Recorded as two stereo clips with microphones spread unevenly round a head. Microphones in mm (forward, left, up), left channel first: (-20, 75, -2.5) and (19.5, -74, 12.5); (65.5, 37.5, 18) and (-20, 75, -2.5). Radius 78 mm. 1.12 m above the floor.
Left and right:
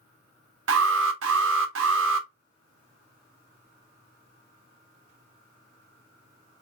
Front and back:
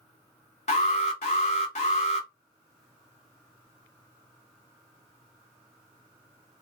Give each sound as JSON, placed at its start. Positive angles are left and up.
{"t": 0.7, "sound": "an alarm", "azimuth_deg": -70, "distance_m": 0.8}